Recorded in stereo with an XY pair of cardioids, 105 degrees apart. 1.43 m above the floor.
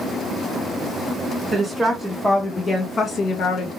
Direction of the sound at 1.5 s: 15° right.